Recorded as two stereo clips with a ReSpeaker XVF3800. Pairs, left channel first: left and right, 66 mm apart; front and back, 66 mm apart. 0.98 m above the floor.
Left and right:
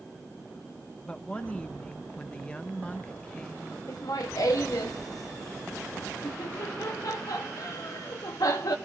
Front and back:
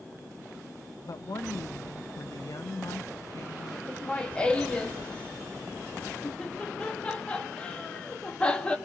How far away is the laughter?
About 1.7 m.